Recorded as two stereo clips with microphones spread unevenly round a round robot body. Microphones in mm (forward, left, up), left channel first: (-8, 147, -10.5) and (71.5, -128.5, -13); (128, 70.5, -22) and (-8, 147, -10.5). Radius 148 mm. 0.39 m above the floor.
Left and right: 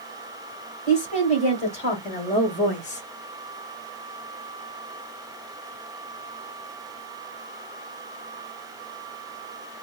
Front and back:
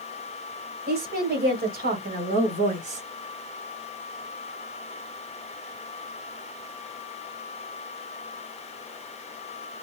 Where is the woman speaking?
175° left, 2.0 m; by 3.0 s 160° left, 1.1 m.